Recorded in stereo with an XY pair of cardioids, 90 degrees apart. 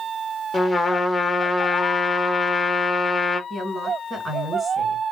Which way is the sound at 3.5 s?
35° right.